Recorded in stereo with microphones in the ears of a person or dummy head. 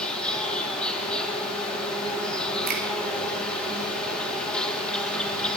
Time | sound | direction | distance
0.0 | an insect | 10° left (ahead or behind) | 2.5 m
2.7 | a finger snap | 50° right (ahead or behind) | 2 m